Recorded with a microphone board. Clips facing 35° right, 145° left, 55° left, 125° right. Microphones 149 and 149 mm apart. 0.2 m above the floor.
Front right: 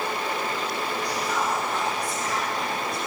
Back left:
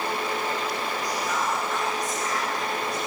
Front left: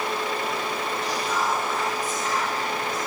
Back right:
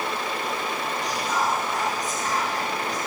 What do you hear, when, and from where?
1.0 s whispering: 90° right, 2 m